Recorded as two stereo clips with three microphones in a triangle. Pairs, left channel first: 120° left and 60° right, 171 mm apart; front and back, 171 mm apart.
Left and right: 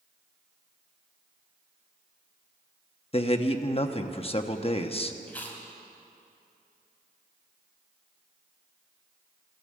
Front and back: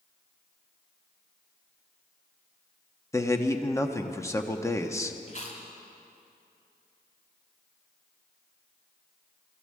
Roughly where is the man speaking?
Left.